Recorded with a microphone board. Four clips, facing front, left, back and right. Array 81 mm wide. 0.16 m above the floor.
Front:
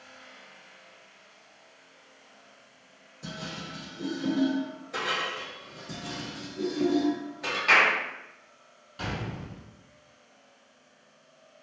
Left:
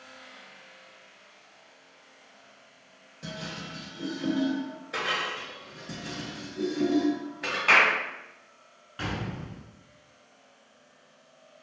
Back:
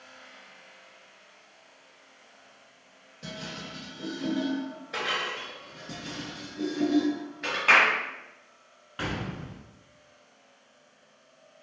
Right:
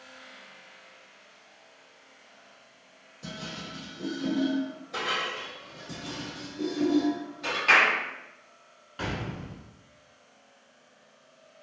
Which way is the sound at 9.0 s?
175° left.